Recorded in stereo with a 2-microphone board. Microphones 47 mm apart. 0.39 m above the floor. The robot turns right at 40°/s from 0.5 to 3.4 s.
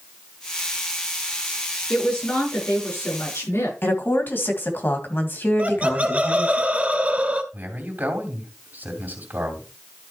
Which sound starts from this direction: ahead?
A woman speaking, at 1.9 s.